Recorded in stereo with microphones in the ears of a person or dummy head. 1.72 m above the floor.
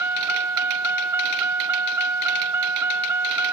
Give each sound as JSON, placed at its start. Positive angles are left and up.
{"t": 0.0, "sound": "a vehicle", "side_deg": -15}